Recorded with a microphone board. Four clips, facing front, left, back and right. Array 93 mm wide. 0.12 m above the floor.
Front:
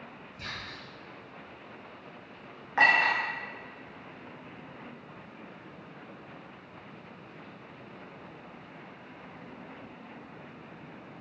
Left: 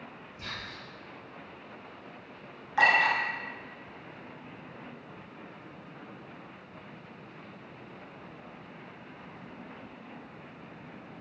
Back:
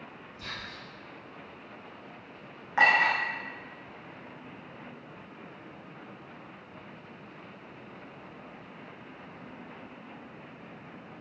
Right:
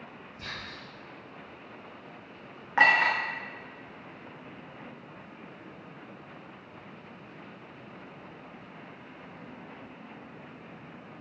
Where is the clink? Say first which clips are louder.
Right 1 dB, even; 95° right, 0.7 m.